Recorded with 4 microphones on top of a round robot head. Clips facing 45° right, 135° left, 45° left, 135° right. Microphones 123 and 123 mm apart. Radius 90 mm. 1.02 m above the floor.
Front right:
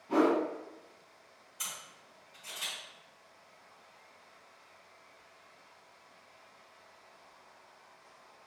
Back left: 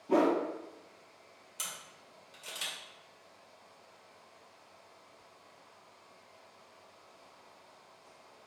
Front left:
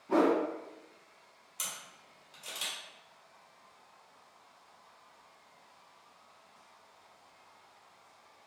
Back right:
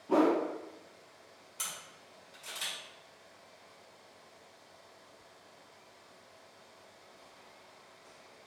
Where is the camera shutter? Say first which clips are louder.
Even, front left 1 dB; 120° left, 1.9 m.